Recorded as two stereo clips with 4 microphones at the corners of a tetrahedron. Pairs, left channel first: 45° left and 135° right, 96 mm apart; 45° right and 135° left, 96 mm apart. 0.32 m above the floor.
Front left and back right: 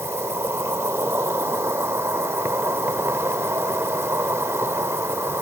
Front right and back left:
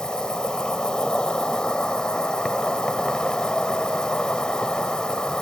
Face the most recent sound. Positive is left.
turn(degrees=-115)